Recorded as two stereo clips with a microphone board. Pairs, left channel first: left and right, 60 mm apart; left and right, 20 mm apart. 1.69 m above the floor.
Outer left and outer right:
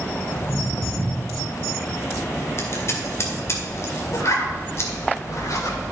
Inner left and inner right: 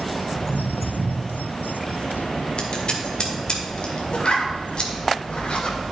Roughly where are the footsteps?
Left.